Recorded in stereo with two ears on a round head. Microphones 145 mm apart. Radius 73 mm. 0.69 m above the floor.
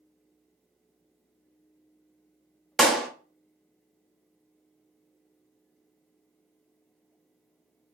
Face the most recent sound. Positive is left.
turn(degrees=0)  # may be behind; listen again after turning